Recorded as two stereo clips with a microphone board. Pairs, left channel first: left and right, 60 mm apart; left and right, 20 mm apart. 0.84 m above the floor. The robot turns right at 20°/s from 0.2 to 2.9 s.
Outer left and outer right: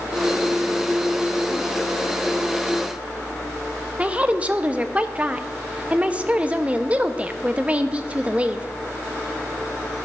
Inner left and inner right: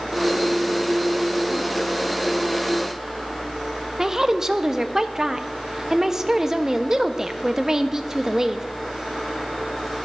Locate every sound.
4.0 s a woman speaking: 25° right (ahead or behind), 0.6 m